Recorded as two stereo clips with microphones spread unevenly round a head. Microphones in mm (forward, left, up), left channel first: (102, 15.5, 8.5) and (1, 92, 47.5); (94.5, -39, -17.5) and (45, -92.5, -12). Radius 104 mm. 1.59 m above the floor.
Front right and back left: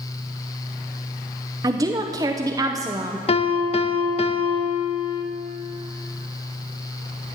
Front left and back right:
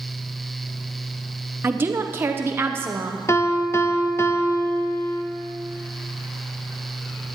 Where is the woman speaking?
Straight behind, 0.5 m.